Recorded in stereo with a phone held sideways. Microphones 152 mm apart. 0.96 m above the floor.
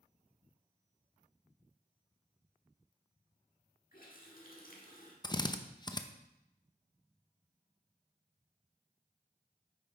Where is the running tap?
70° left (ahead or behind), 1.6 m.